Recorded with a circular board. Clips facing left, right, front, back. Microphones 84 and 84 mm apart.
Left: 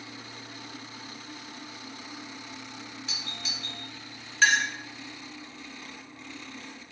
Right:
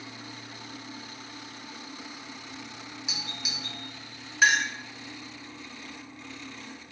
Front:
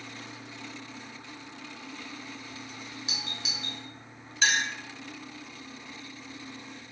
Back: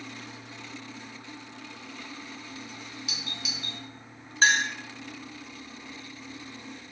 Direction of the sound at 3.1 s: 25° right.